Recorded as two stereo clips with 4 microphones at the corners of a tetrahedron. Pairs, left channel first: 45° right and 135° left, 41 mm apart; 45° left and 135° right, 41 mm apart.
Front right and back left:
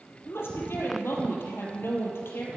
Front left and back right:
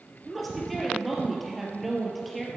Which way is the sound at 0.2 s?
45° right.